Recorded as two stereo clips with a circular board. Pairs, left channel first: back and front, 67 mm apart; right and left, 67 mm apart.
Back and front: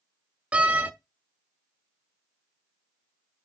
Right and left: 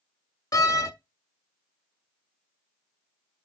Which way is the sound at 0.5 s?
65° right.